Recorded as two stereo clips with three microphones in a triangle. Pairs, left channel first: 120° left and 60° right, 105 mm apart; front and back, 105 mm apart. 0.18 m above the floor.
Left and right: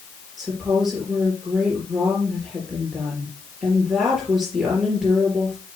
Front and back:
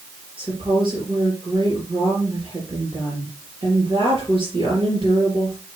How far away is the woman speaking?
About 3.5 m.